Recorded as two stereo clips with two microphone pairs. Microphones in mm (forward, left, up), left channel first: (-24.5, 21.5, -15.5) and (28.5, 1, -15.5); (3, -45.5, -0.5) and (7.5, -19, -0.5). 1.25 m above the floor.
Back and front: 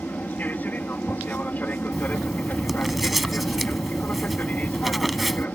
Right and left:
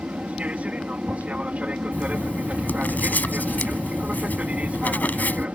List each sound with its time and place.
0.0 s an aircraft: 100° left
1.9 s writing: 110° right